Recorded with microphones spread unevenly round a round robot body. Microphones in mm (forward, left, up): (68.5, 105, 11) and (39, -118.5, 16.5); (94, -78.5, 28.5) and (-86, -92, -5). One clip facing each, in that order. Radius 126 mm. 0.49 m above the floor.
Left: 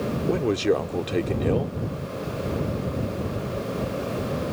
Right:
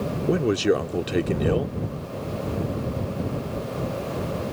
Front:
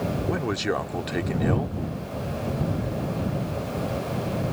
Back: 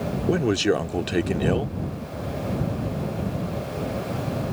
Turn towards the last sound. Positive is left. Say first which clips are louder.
# right 2 dB, back 9 dB
turn(degrees=-175)